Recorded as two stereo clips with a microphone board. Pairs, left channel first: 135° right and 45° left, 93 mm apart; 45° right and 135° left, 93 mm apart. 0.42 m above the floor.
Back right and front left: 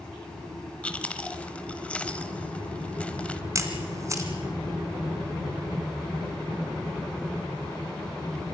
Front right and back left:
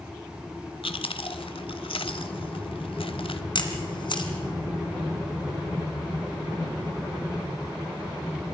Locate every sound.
0.8 s chewing: 60° right, 1.0 m
3.5 s a camera shutter: 10° right, 2.5 m